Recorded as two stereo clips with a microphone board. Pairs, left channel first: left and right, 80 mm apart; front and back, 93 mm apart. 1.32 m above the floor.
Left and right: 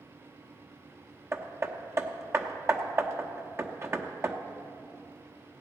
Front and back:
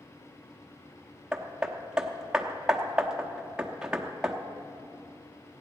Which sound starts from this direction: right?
Hammering, at 1.3 s.